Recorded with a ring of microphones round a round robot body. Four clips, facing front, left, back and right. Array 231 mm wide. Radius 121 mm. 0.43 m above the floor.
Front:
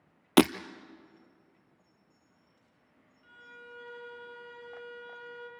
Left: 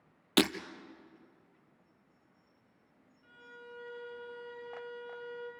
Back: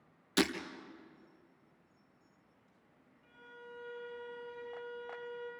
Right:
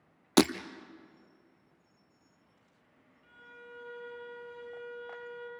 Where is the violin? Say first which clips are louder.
Even, front 2 dB; straight ahead, 7 m.